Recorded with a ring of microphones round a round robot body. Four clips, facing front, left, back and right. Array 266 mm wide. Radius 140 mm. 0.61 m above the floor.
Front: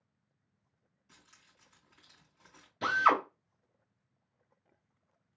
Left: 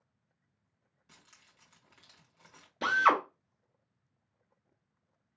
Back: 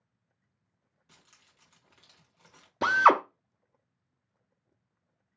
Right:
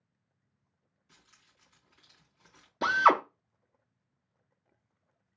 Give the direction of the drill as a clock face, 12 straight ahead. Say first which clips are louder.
Right 3 dB, back 6 dB; 5 o'clock.